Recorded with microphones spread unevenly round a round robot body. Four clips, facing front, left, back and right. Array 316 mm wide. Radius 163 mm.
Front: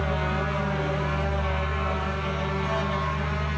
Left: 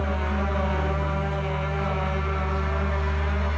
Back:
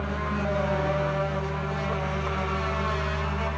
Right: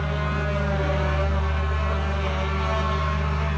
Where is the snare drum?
I don't hear a snare drum.